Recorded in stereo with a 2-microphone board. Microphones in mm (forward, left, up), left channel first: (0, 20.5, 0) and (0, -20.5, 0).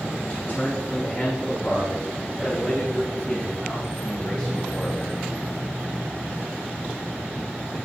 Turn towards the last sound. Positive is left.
turn(degrees=25)  # may be behind; listen again after turning